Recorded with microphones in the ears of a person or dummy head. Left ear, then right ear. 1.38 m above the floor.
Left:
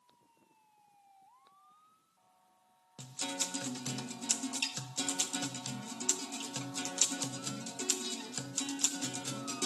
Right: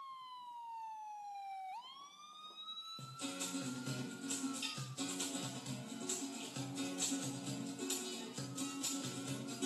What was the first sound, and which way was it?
A guitar, 50° left (ahead or behind).